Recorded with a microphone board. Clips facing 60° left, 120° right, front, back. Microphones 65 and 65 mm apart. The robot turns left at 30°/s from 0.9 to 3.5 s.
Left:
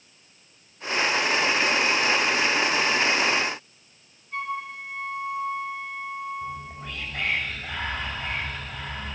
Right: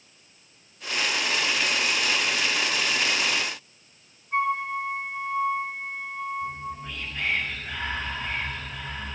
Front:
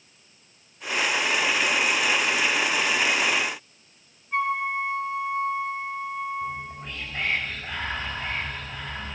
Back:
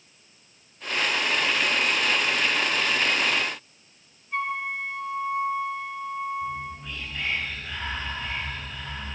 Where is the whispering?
40° left, 4 m.